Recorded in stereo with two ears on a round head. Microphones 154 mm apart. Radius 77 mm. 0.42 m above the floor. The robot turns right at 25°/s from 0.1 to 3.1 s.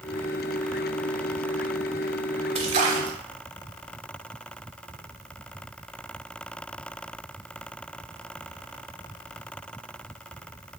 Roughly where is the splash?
Right.